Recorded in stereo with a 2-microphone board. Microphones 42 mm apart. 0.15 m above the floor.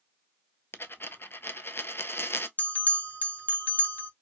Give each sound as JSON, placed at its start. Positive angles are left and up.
{"t": 0.7, "sound": "a dropped coin", "side_deg": 65, "distance_m": 0.5}
{"t": 2.6, "sound": "a bell", "side_deg": 35, "distance_m": 0.8}